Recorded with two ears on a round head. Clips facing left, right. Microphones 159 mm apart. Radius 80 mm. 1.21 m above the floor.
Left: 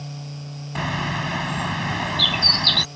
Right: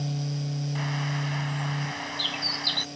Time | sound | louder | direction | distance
0.8 | a bird | left 4 dB | 75° left (ahead or behind) | ?